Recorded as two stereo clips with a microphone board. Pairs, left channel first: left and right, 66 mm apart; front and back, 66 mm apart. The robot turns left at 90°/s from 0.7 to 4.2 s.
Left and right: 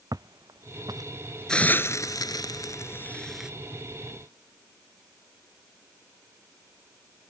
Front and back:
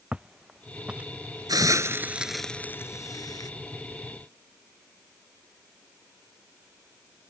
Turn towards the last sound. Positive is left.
turn(degrees=-75)